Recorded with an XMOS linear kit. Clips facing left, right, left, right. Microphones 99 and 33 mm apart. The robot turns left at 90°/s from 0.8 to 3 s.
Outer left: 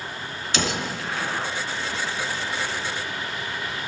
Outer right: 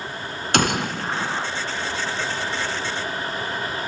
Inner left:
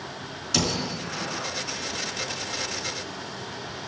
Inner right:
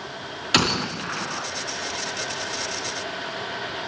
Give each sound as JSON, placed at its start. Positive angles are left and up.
{"t": 0.5, "sound": "a gunshot", "azimuth_deg": -110, "distance_m": 2.5}